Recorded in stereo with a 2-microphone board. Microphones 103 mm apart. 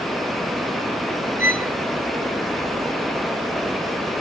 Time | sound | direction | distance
1.4 | a violin | 20° right (ahead or behind) | 0.6 m